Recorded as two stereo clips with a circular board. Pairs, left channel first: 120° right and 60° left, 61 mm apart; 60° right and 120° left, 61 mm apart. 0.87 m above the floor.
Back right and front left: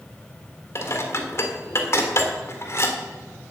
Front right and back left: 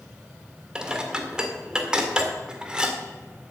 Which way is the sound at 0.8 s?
165° right.